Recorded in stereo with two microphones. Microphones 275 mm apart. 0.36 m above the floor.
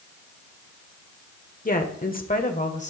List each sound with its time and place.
1.6 s a woman speaking: 30° left (ahead or behind), 0.9 m; by 2.9 s 25° left (ahead or behind), 1.4 m